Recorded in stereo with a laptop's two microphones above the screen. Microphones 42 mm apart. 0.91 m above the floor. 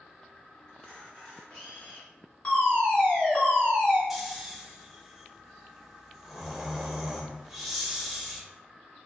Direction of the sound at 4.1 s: 5° right (ahead or behind).